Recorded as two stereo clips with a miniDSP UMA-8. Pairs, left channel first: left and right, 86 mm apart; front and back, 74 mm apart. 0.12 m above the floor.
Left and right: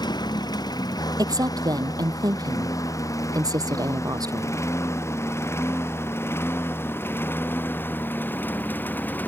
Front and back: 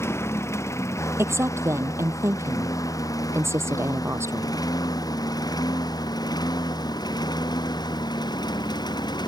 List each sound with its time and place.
0.0 s a lawn mower: 55° left; by 9.3 s 20° left
1.2 s a woman speaking: 130° right